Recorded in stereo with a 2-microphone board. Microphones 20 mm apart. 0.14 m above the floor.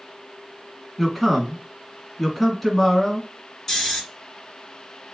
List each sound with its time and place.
1.0 s a man speaking: 5° left (ahead or behind), 1.5 m
3.7 s snoring: 20° left (ahead or behind), 1.4 m